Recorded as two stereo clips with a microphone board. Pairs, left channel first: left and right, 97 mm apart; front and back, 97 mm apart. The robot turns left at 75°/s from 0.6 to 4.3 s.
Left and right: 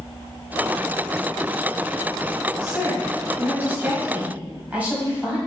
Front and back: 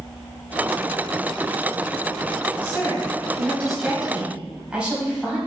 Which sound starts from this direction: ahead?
A woman speaking, at 2.6 s.